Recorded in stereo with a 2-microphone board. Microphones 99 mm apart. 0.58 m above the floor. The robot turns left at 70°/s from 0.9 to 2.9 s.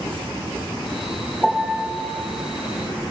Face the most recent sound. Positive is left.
turn(degrees=-100)